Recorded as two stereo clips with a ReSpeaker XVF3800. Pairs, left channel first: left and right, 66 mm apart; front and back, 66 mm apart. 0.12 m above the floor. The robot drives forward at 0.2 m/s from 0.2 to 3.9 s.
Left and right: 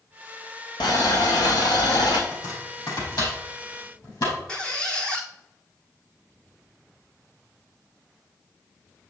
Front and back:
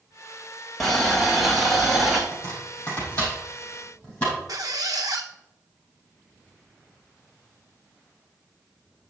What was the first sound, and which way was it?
Boiling, 85° left.